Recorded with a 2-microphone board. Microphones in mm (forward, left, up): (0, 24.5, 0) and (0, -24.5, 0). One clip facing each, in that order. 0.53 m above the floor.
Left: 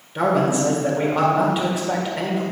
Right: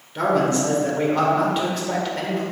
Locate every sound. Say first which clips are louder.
0.1 s a man speaking: left 1 dB; 10° left (ahead or behind), 1.7 m